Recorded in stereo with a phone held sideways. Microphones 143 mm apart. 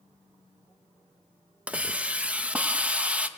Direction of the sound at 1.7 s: 10° right (ahead or behind).